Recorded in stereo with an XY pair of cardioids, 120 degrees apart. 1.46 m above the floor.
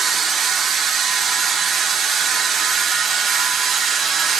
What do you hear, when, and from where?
0.0 s a machine running: 50° right, 0.8 m